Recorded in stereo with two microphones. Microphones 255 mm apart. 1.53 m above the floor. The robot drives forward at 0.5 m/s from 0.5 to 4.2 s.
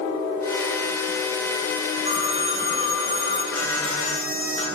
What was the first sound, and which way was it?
A phone ringing, 25° right (ahead or behind).